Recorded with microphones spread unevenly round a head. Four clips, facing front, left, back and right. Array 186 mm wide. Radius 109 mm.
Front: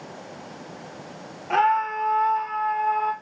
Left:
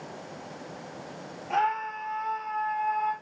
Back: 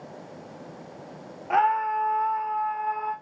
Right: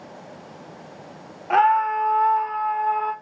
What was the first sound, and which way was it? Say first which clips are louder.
A scream: right 10 dB, front 1 dB; 75° right.